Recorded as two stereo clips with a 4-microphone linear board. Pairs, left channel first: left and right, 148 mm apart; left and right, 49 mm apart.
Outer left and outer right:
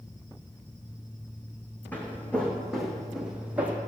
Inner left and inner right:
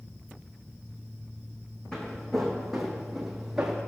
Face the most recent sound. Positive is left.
turn(degrees=-10)  # may be behind; listen again after turning